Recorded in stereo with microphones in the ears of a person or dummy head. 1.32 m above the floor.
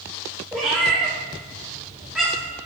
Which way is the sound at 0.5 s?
Centre (ahead or behind).